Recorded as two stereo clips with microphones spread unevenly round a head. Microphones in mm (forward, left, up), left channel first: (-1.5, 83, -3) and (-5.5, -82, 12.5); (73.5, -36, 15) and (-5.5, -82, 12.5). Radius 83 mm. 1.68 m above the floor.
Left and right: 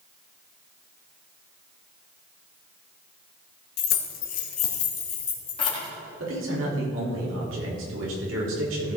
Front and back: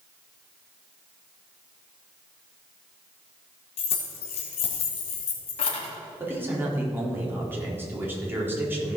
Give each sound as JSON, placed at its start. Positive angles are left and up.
{"t": 3.8, "sound": "keys jangling", "azimuth_deg": 60, "distance_m": 1.5}
{"t": 6.2, "sound": "a man speaking", "azimuth_deg": -85, "distance_m": 4.0}